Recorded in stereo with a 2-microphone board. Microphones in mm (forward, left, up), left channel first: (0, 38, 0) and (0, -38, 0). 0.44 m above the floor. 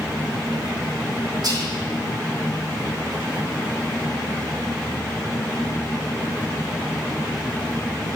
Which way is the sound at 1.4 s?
60° right (ahead or behind).